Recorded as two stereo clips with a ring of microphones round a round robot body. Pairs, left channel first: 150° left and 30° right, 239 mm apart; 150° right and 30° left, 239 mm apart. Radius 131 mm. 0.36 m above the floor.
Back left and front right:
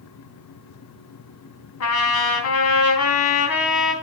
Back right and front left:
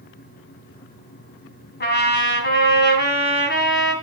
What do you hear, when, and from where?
1.8 s a trumpet: 165° left, 3 m